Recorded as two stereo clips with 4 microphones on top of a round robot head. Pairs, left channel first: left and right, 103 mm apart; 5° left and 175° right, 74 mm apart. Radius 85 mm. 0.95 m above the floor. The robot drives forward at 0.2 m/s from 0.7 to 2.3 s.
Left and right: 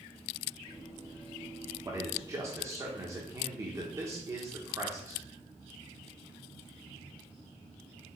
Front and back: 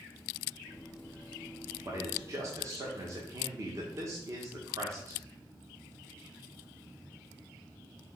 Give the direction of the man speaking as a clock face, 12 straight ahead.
5 o'clock.